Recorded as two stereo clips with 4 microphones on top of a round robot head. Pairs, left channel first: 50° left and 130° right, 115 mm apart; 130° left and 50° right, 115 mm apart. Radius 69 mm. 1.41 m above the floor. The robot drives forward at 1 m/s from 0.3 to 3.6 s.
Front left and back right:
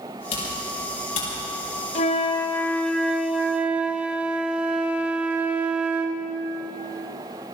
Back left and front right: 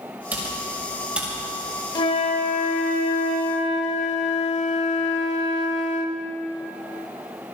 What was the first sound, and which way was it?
Typing on a keyboard, 30° left.